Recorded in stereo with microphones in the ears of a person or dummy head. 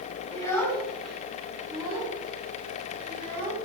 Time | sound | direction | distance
0.3 | a child speaking | 15° left (ahead or behind) | 1.8 m